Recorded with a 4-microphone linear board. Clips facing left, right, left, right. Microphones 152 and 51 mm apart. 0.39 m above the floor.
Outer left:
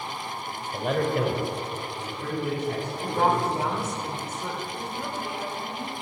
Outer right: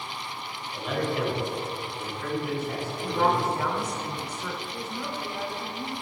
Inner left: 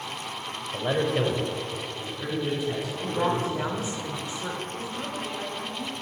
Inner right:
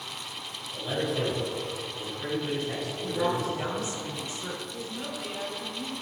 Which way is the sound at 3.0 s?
25° left (ahead or behind).